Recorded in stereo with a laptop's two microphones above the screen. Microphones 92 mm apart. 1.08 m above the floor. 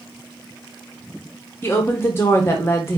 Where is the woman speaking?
25° left (ahead or behind), 0.8 m.